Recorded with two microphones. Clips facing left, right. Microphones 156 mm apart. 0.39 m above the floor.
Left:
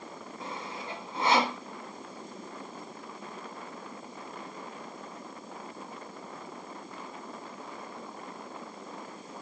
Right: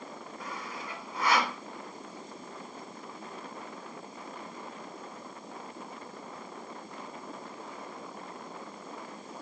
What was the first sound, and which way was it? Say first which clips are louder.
Sawing: left 2 dB; 25° left (ahead or behind).